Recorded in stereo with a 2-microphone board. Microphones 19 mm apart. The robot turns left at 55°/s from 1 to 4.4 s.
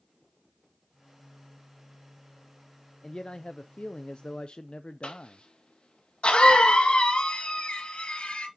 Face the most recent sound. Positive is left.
turn(degrees=75)  # may be behind; listen again after turning